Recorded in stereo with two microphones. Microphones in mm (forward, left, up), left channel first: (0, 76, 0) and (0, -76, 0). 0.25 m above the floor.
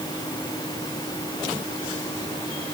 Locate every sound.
Only background noise.